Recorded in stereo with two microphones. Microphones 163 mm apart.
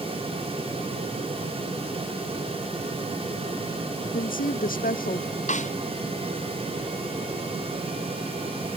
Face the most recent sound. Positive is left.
turn(degrees=50)  # may be behind; listen again after turning